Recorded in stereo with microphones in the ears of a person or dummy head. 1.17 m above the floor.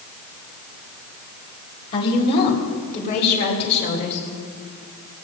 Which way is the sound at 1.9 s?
45° left (ahead or behind).